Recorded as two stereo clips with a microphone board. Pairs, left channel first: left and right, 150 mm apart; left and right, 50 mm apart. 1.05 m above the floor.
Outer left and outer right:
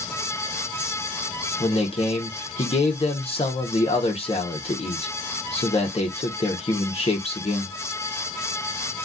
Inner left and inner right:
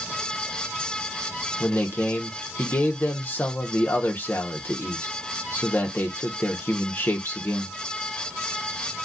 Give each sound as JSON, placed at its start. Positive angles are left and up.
{"t": 1.6, "sound": "a man speaking", "side_deg": 40, "distance_m": 0.8}